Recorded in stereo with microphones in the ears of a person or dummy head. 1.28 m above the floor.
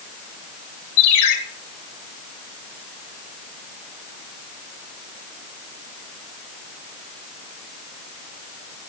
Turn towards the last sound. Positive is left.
turn(degrees=60)  # may be behind; listen again after turning